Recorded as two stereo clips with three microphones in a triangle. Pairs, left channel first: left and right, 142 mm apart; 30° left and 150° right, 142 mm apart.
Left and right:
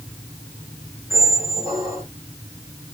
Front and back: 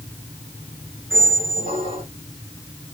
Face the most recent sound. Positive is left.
turn(degrees=-155)